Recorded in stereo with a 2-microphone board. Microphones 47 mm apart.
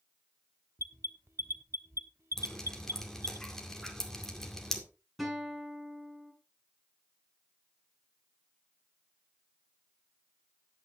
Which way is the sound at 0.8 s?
70° right (ahead or behind).